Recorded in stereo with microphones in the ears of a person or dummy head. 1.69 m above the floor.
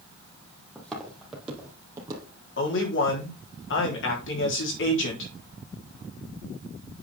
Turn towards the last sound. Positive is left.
turn(degrees=80)